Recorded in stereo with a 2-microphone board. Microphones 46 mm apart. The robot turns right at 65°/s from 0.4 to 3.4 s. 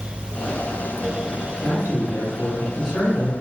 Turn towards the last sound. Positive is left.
turn(degrees=-160)